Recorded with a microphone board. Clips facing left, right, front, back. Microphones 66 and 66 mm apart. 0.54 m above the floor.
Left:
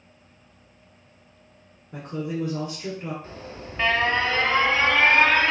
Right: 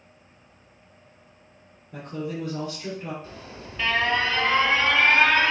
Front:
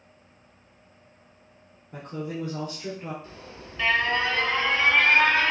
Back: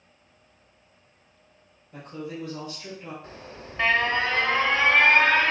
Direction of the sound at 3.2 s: 145° left.